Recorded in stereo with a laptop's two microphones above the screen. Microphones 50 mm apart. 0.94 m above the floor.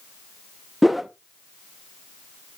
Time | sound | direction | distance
0.8 | a whoosh | centre (ahead or behind) | 0.7 m